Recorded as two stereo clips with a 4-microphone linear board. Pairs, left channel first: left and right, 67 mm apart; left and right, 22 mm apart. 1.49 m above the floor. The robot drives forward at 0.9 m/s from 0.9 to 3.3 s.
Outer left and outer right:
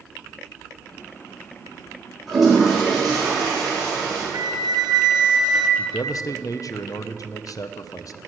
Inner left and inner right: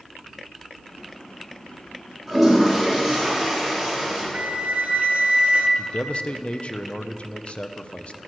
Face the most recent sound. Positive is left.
turn(degrees=60)  # may be behind; listen again after turning